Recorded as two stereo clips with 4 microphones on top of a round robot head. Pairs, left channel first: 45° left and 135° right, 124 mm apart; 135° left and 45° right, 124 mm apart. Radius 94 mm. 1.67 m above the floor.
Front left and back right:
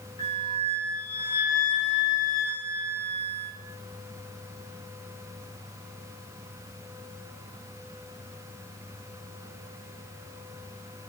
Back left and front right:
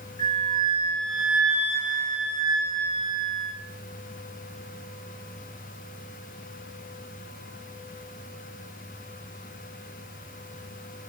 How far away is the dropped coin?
I don't hear a dropped coin.